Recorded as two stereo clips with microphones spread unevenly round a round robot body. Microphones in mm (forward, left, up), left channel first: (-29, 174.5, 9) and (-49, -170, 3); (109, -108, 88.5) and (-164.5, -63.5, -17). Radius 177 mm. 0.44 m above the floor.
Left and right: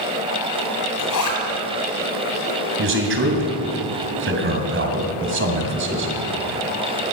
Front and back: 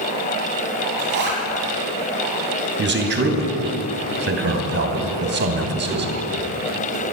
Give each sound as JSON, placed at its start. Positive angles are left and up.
{"t": 1.0, "sound": "a zipper", "azimuth_deg": 120, "distance_m": 2.5}
{"t": 2.8, "sound": "a man speaking", "azimuth_deg": -150, "distance_m": 2.5}